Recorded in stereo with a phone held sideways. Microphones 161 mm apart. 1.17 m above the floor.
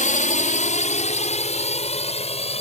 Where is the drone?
50° left (ahead or behind); by 2.6 s 40° left (ahead or behind).